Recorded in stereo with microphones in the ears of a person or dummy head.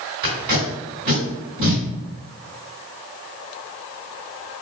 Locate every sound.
0.2 s tape being pulled: 55° right (ahead or behind), 1.9 m